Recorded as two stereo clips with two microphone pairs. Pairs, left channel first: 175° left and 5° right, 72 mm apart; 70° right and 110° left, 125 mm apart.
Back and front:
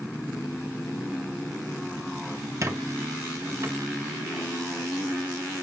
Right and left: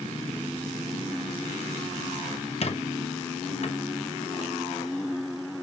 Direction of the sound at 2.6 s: 45° right.